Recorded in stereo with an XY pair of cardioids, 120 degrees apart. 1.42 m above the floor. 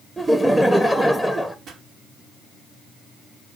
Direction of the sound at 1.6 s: 55° right.